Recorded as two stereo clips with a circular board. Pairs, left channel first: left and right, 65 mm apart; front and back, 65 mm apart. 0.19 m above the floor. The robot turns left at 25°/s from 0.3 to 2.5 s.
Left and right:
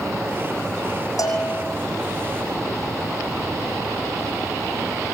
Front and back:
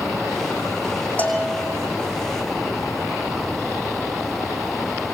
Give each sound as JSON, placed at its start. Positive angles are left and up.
{"t": 1.2, "sound": "a bell", "azimuth_deg": 65, "distance_m": 6.5}